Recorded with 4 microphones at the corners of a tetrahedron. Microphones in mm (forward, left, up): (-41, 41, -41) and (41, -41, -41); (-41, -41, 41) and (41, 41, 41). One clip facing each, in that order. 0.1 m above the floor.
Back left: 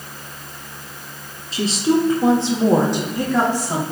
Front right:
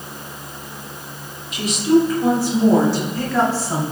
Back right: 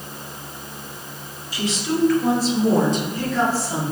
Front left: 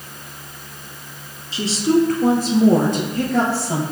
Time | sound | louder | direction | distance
1.5 | a woman speaking | front right 2 dB, front left 7 dB | 95° left | 2 m